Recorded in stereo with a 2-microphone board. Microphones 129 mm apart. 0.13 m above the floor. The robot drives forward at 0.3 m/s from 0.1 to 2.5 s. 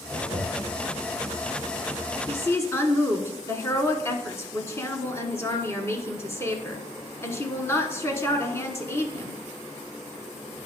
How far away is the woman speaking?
About 1.3 m.